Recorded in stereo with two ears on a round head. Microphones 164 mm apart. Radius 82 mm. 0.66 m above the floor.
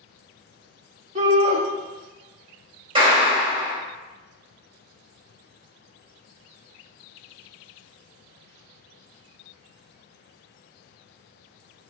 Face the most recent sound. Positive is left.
turn(degrees=-30)  # may be behind; listen again after turning